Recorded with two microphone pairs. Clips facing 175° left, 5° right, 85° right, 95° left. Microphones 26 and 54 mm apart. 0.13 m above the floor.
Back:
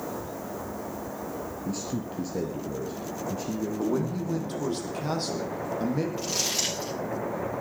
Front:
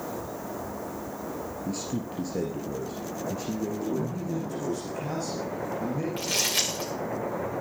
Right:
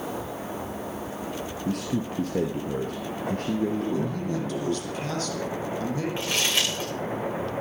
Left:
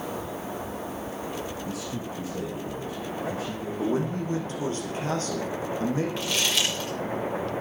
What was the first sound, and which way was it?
A man speaking, 90° right.